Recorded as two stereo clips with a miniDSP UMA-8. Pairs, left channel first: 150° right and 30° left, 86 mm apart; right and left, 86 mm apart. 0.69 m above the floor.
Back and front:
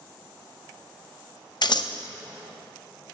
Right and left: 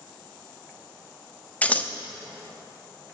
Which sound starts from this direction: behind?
Scissors, at 1.6 s.